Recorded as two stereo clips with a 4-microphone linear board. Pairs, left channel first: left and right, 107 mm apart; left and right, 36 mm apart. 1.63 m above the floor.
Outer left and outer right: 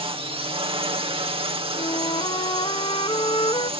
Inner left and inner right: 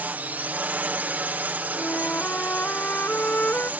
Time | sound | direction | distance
0.0 | a drone | 65° right (ahead or behind) | ?
1.8 | a flute | 55° left (ahead or behind) | ?